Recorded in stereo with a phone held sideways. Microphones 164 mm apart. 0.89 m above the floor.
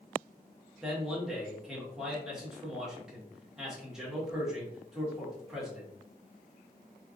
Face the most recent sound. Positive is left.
turn(degrees=-5)  # may be behind; listen again after turning